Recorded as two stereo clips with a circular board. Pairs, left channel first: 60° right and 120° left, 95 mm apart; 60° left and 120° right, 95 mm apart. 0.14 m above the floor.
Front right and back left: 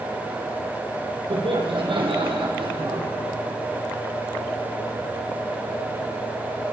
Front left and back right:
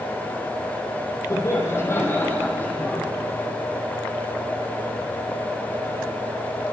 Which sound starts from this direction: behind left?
Laughter, at 1.3 s.